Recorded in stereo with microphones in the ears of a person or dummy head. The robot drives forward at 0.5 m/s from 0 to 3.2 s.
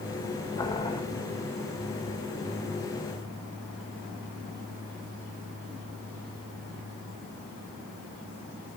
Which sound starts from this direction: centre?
Boiling, at 0.6 s.